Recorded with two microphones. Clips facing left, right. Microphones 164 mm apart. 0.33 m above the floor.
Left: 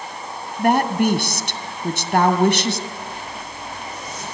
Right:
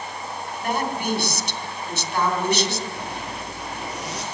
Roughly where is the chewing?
No chewing in this recording.